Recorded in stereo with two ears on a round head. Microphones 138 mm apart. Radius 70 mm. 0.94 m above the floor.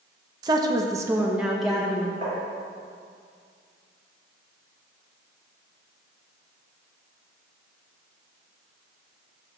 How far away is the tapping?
About 2.5 m.